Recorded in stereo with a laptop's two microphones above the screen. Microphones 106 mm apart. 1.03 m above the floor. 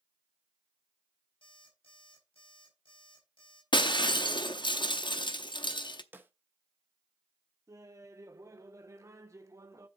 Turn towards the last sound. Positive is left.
turn(degrees=-30)  # may be behind; listen again after turning